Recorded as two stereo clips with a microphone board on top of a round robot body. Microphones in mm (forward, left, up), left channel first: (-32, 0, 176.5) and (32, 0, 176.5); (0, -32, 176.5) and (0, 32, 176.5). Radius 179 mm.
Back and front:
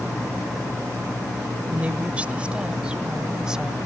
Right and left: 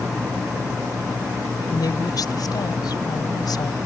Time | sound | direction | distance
1.7 | a woman speaking | 65° right | ?